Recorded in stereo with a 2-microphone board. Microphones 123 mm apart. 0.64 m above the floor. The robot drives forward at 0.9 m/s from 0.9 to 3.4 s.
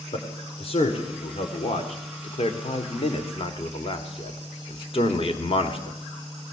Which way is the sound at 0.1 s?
50° left (ahead or behind).